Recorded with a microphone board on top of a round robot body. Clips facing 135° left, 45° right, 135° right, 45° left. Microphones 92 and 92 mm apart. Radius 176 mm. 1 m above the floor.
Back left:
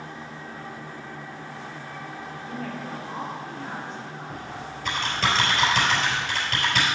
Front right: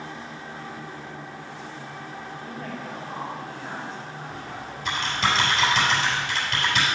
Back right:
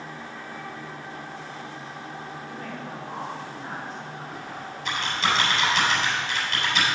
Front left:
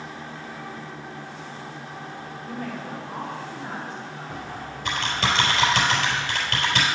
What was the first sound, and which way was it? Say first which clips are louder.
A woman speaking: back left 3 dB, front left 3 dB; 145° left.